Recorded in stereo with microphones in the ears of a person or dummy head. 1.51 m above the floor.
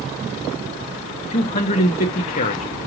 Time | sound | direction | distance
1.3 | a man speaking | 35° left (ahead or behind) | 0.6 m